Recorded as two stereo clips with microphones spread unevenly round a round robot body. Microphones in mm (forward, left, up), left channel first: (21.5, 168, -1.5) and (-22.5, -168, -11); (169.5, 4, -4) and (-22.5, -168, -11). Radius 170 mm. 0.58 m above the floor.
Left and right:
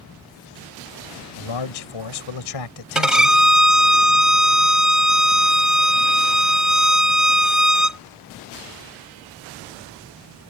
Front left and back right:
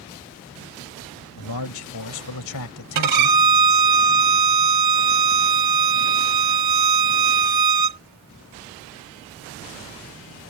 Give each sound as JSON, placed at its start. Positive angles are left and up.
{"t": 1.4, "sound": "a man speaking", "azimuth_deg": 65}
{"t": 3.0, "sound": "a violin", "azimuth_deg": 175}